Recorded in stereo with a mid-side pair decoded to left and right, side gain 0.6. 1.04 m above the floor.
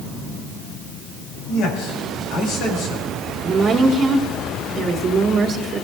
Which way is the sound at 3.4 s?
40° right.